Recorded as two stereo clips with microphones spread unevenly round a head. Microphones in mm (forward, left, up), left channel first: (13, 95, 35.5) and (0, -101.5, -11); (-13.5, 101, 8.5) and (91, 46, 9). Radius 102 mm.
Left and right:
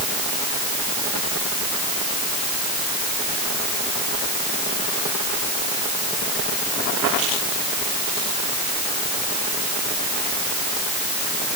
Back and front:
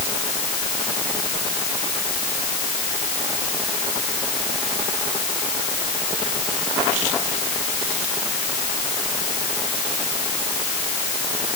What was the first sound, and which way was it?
Only background noise.